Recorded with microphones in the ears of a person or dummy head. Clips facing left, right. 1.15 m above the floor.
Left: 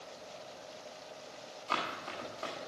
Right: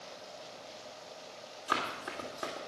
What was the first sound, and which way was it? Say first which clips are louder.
Running footsteps: right 1 dB; 25° right (ahead or behind).